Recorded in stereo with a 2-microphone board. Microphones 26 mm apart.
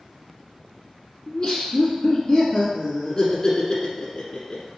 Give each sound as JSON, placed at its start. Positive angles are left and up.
{"t": 1.3, "sound": "laughter", "side_deg": 35, "distance_m": 1.3}